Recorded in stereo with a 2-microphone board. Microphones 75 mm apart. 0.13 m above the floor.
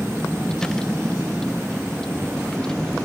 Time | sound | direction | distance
0.0 | a vehicle | 10° left (ahead or behind) | ?